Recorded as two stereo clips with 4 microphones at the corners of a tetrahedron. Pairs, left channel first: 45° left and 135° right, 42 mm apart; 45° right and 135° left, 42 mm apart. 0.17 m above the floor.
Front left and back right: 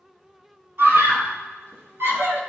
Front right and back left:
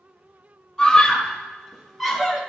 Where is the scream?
115° right, 5 m; by 2.4 s 150° right, 3.5 m.